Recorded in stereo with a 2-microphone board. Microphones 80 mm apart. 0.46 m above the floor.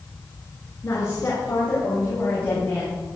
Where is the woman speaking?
40° left (ahead or behind), 5.5 m; by 3.0 s 20° left (ahead or behind), 7.5 m.